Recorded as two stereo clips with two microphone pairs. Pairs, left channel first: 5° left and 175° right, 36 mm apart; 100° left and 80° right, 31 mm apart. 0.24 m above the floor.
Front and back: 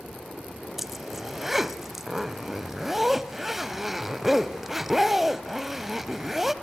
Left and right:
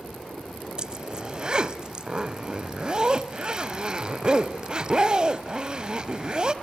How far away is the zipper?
About 0.9 m.